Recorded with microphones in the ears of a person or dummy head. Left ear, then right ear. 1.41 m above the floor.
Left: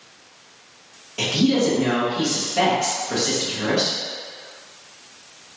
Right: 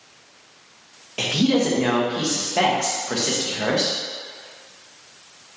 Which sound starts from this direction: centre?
A woman speaking, at 1.2 s.